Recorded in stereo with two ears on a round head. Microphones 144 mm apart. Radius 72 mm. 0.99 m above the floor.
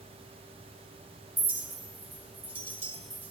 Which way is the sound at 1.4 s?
15° right (ahead or behind).